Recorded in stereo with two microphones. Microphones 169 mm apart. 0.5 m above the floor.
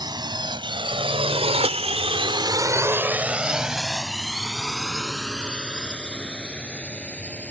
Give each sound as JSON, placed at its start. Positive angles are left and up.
{"t": 0.0, "sound": "a drone", "side_deg": -25}